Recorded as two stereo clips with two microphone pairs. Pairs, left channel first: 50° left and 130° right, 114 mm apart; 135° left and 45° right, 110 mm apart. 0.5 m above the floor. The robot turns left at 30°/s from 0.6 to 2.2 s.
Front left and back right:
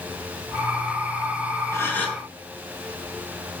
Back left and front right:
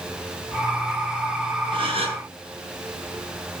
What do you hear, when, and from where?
1.7 s a gasp: 15° right, 4 m; by 2.2 s 30° right, 4 m